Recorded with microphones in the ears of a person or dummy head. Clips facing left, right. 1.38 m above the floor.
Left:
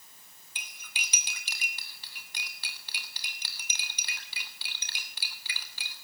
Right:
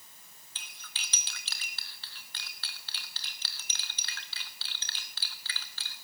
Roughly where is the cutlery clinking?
Centre.